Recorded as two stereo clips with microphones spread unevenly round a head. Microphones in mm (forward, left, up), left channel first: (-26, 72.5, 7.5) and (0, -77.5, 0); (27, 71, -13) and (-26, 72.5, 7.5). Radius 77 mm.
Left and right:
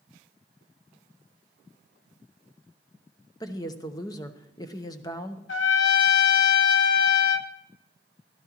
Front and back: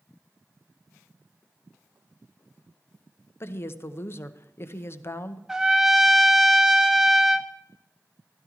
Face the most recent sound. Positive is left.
turn(degrees=100)